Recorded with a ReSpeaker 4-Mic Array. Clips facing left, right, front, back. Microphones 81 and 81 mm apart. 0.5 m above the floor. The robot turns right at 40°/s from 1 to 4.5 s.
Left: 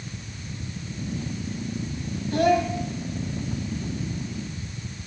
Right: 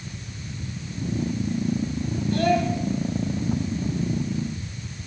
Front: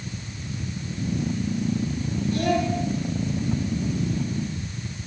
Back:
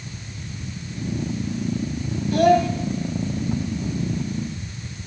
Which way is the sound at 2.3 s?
155° left.